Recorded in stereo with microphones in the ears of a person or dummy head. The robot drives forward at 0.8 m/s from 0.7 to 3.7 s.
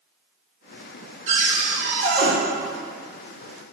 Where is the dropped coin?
I don't hear a dropped coin.